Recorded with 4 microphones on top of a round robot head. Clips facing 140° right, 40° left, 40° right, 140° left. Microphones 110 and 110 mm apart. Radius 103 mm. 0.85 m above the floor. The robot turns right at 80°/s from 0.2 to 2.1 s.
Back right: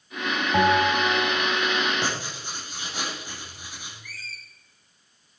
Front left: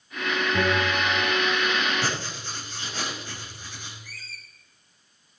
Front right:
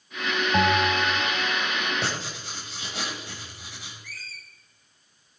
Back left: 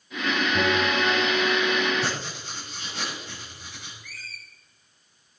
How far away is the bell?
About 2.5 m.